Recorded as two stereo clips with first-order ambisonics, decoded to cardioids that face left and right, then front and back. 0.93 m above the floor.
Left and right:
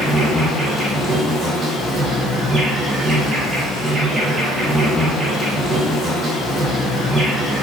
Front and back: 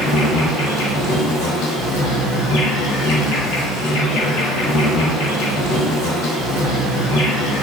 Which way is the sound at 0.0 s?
20° right.